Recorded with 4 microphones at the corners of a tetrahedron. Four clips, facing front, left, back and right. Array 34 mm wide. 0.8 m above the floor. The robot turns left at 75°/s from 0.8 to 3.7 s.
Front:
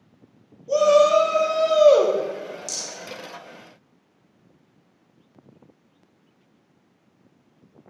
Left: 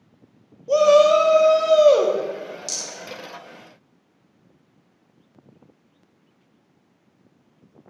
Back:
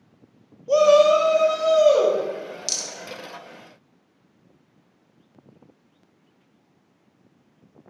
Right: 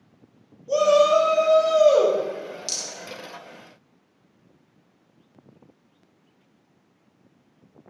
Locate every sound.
0.7 s a shout: 135° left, 1.4 m; by 2.2 s 30° left, 1.4 m
2.7 s a rattle: 160° right, 1.1 m; by 2.9 s 175° right, 1.1 m